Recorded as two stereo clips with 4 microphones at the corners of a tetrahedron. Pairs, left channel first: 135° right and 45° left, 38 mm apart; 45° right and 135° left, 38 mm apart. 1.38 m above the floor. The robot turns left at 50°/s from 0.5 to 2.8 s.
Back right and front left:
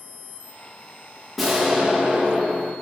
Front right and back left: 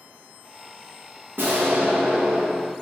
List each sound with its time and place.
1.4 s an explosion: 140° left, 1.1 m; by 2.7 s 70° left, 1.1 m